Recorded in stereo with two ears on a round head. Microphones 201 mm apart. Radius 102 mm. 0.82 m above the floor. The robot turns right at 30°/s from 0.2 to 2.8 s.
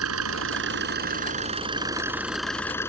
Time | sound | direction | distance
0.0 | an engine running | 65° right | ?